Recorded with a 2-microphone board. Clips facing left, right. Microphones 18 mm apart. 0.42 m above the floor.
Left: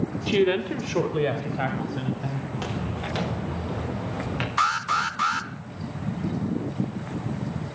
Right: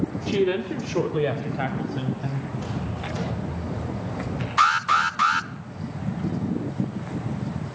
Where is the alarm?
20° right (ahead or behind), 0.6 m.